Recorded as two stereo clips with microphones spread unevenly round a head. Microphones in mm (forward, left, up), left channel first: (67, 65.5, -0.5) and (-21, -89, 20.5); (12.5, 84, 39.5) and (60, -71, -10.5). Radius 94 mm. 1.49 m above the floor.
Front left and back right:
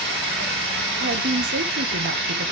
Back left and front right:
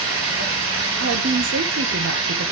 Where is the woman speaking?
90° right, 0.8 m.